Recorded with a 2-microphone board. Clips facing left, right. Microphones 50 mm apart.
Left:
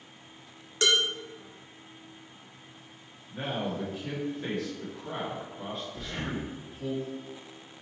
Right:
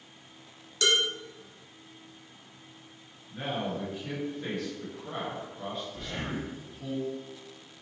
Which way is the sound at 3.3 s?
5° left (ahead or behind).